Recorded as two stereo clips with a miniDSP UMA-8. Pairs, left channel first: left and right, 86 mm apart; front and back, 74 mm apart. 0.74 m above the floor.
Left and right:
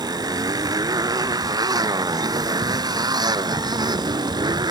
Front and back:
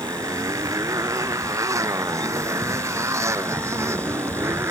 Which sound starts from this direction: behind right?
A motorcycle, at 0.0 s.